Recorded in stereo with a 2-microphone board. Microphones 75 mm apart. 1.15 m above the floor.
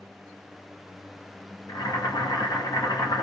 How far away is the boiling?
About 1.9 m.